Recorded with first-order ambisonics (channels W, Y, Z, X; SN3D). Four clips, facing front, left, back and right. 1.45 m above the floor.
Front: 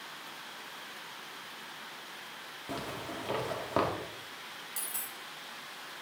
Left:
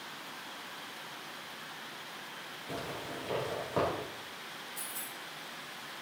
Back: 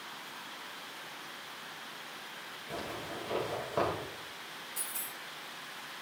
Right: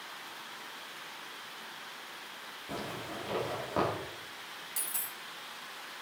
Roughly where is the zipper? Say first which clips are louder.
Right 1 dB, front 1 dB; ahead.